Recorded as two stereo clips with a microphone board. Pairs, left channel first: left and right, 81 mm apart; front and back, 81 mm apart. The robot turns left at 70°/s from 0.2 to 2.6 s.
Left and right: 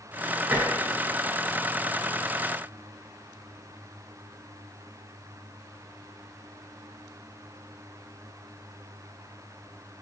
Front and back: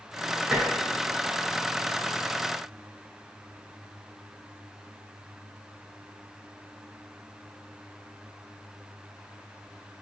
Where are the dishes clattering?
100° right, 0.9 m; by 0.7 s 115° right, 0.9 m.